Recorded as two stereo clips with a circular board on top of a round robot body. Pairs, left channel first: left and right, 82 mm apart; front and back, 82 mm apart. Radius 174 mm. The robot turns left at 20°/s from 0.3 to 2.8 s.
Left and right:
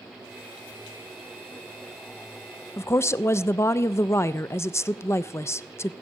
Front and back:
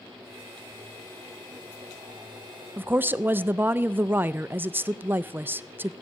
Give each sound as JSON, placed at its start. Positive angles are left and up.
{"t": 2.8, "sound": "a woman speaking", "azimuth_deg": 125, "distance_m": 0.5}